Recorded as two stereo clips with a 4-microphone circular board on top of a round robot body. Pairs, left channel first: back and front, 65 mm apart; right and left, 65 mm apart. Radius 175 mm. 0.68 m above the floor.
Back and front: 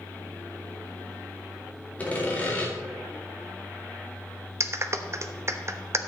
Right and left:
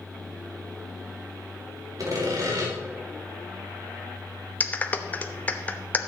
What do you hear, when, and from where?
2.0 s sawing: 115° left, 3 m
4.6 s a clap: 30° right, 1.1 m